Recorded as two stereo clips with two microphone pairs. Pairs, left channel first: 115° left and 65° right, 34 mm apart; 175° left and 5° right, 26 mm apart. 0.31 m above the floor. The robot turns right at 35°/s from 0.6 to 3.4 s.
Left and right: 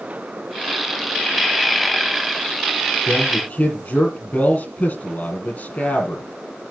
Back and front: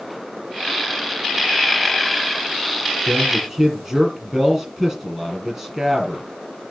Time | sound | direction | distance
3.1 | a man speaking | 60° left | 6.5 m